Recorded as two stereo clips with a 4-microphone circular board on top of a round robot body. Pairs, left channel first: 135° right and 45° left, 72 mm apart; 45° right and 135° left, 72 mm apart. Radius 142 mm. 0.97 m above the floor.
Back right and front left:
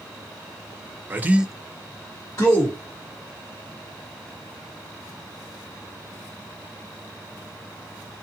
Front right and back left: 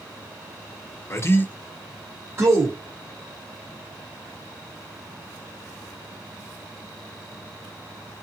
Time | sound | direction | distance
1.1 | a man speaking | 10° right | 0.7 m